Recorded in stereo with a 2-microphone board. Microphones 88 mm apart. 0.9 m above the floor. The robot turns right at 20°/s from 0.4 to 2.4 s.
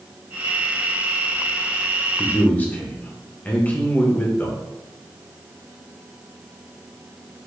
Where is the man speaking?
15° left (ahead or behind), 0.7 m.